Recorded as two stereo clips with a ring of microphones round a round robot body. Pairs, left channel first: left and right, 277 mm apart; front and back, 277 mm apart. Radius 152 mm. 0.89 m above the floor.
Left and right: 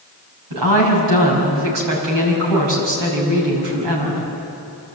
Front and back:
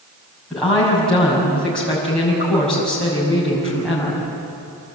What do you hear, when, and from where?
0.5 s a woman speaking: 85° right, 6 m